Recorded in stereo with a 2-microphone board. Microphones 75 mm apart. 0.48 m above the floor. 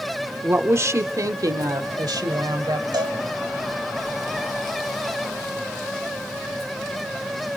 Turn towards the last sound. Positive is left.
turn(degrees=-70)  # may be behind; listen again after turning